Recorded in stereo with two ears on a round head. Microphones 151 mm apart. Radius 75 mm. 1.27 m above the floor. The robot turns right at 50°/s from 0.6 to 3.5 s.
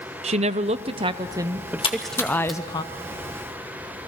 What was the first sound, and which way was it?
A woman speaking, 70° right.